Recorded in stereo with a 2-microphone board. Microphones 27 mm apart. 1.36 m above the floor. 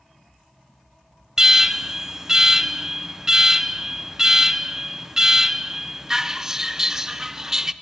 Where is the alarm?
15° right (ahead or behind), 0.5 m.